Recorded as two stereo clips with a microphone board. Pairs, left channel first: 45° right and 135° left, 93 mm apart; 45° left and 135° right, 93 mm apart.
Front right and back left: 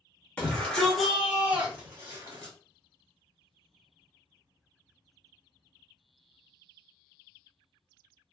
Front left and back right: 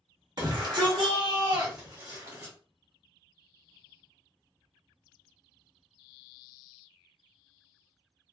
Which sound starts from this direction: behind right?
A shout, at 0.4 s.